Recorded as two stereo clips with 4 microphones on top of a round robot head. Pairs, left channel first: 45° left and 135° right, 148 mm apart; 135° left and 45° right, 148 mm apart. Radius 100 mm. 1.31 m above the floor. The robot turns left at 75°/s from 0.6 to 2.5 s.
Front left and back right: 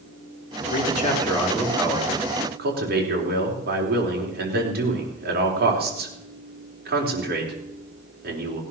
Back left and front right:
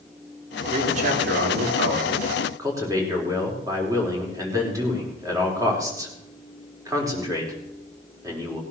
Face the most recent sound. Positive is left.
turn(degrees=-115)